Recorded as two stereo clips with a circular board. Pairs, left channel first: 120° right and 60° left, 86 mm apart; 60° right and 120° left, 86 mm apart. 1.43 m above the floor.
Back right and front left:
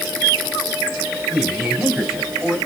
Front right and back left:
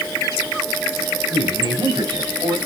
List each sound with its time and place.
1.3 s a man speaking: 140° left, 6.5 m; by 2.6 s 150° left, 7.5 m